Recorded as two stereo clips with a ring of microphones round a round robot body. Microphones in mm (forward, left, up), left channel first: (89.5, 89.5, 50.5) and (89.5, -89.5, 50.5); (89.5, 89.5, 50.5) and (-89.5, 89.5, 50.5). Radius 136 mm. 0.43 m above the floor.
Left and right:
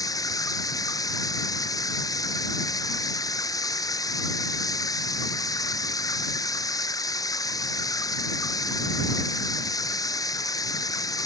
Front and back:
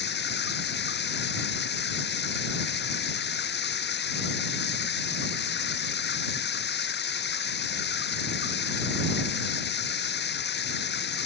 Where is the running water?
20° left.